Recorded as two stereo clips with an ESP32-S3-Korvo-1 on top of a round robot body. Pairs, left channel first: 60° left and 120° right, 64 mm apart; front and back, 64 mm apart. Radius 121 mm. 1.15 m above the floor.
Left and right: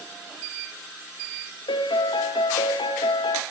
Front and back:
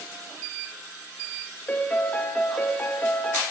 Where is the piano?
70° left, 0.7 m.